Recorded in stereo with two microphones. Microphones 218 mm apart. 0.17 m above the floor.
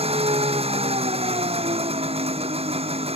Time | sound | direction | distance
0.0 | an engine running | 30° right (ahead or behind) | ?